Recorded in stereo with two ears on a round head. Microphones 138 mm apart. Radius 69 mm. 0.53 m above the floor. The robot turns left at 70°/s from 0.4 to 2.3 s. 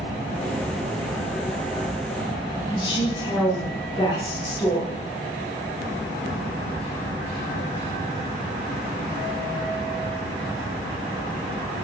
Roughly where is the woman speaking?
Left.